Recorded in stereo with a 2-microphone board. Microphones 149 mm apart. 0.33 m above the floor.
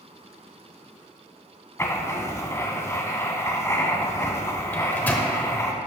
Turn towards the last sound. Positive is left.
turn(degrees=15)  # may be behind; listen again after turning